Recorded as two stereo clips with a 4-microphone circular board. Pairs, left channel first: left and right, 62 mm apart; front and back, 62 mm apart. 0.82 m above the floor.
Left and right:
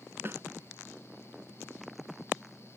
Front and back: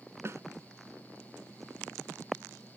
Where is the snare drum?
135° right.